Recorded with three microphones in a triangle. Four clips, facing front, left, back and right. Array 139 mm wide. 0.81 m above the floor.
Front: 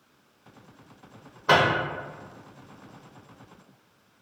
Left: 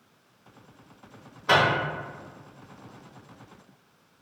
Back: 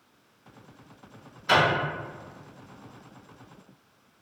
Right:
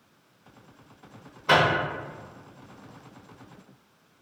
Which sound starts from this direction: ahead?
A microwave, at 1.5 s.